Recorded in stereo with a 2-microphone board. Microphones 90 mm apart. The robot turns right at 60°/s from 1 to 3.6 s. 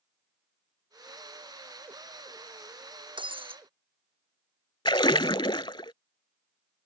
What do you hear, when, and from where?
3.2 s breaking glass: 65° right (ahead or behind); by 3.6 s 85° right
4.8 s a splash: 65° left (ahead or behind)